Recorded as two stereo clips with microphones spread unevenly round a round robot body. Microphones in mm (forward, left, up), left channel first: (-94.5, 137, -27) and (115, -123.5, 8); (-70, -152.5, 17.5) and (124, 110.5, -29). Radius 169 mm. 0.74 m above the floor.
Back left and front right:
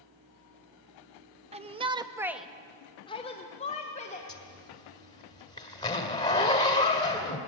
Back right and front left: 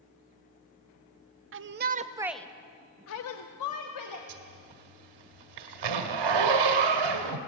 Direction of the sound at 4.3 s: 50° left.